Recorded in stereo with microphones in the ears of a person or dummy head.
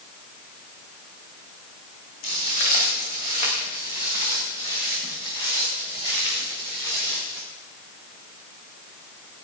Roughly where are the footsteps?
Left.